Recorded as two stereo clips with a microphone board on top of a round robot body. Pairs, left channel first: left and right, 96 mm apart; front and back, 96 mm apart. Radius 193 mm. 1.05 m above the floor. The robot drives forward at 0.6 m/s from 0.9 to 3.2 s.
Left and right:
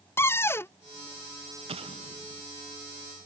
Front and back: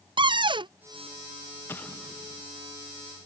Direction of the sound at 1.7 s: 70° right.